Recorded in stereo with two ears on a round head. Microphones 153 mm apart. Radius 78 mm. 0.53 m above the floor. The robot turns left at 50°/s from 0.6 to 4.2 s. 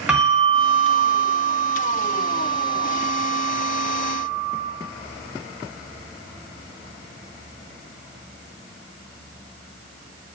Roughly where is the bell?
Ahead.